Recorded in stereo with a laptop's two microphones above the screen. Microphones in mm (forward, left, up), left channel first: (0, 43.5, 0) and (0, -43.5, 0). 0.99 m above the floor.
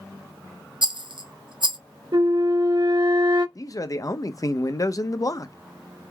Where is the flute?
55° right (ahead or behind), 1.3 m.